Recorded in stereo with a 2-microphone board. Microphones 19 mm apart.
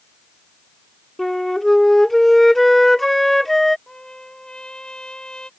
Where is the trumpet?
45° left (ahead or behind).